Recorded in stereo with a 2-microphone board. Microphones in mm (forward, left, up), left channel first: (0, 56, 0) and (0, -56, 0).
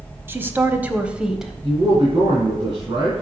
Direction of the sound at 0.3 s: 20° right (ahead or behind).